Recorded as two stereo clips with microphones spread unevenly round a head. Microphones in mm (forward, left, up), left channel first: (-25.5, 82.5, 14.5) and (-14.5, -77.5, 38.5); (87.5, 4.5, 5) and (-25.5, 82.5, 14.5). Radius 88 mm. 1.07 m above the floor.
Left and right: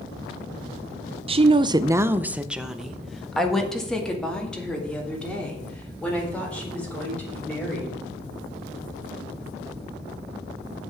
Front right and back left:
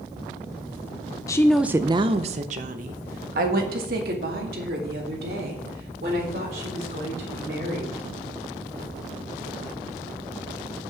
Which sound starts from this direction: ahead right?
A woman speaking, at 1.3 s.